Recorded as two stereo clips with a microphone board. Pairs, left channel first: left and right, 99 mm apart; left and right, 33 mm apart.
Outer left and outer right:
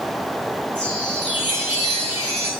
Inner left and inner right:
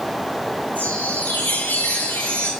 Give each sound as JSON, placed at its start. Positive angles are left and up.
{"t": 0.8, "sound": "a chime", "side_deg": 75, "distance_m": 3.5}